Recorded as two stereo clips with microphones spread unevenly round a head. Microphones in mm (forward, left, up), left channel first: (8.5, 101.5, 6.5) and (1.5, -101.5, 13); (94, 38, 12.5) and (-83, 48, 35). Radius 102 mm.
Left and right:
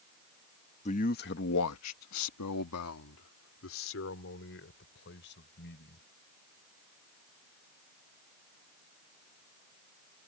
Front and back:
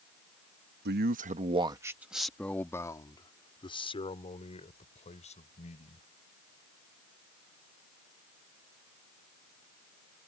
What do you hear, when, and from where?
0.8 s a man speaking: 150° left; by 6.1 s 50° left